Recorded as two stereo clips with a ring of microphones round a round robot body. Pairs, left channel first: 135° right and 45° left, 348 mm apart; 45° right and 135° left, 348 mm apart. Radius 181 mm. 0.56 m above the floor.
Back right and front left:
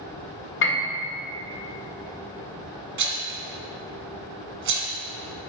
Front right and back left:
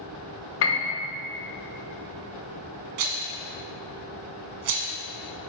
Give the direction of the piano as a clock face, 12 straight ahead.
3 o'clock.